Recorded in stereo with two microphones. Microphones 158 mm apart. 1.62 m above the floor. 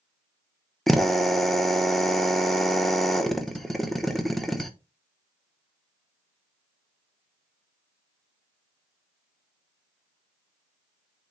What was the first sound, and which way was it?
A drill, centre (ahead or behind).